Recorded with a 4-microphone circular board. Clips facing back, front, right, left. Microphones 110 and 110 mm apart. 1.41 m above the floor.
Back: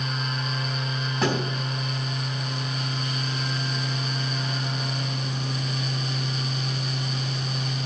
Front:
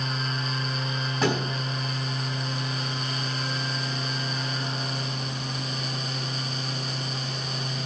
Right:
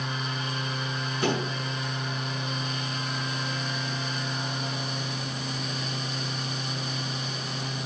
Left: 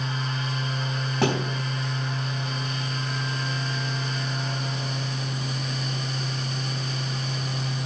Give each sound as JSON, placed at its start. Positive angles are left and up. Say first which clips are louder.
{"t": 1.2, "sound": "a thud", "louder": "even, left 3 dB", "azimuth_deg": 90, "distance_m": 4.5}